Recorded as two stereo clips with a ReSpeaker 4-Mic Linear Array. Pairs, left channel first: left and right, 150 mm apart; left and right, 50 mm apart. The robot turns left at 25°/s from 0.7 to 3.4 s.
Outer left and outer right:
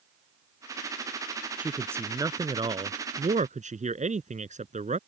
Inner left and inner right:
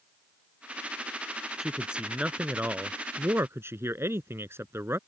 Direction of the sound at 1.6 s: 5° right.